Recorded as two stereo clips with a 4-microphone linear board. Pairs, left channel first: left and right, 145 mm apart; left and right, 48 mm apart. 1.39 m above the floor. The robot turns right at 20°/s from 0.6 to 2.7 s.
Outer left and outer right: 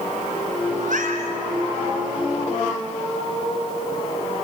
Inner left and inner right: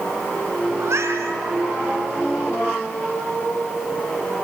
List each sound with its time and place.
0.8 s a cat meowing: 70° right (ahead or behind), 4 m; by 1.4 s 75° right (ahead or behind), 4 m